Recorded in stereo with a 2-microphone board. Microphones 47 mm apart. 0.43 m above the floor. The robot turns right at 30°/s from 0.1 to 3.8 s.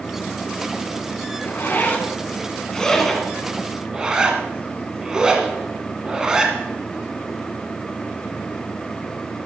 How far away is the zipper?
About 1.9 m.